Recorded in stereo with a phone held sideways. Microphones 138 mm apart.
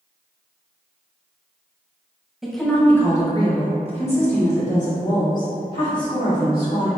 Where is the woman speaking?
5° right (ahead or behind), 0.9 m; by 6.9 s 70° left (ahead or behind), 2.5 m.